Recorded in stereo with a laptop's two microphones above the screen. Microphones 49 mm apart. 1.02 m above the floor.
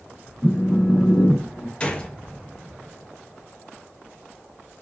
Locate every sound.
0.4 s a phone buzzing: 5° right (ahead or behind), 0.5 m
1.8 s a gunshot: 20° left (ahead or behind), 0.6 m